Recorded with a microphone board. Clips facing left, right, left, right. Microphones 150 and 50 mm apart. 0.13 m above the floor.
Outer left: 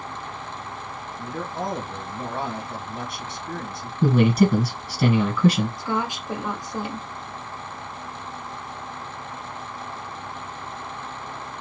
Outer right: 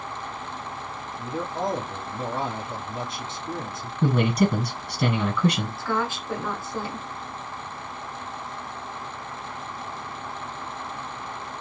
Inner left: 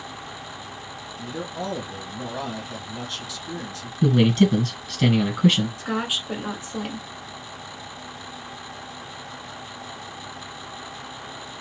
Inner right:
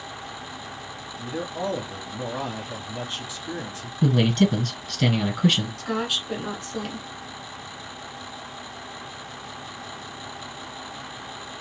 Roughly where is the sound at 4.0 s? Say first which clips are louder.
Outer left 4 dB, inner left 2 dB; centre.